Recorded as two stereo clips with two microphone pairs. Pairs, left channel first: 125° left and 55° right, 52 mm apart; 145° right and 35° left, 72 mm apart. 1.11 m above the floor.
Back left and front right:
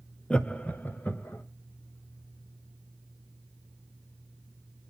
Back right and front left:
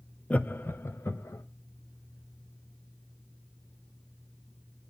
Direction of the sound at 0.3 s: 170° left.